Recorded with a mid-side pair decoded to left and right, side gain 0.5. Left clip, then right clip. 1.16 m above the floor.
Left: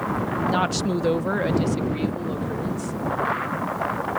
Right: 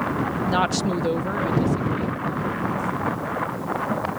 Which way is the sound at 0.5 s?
15° right.